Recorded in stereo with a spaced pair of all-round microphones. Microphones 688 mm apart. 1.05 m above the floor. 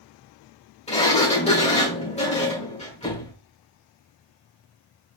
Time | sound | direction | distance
0.9 | a sliding door | 10° left (ahead or behind) | 1.3 m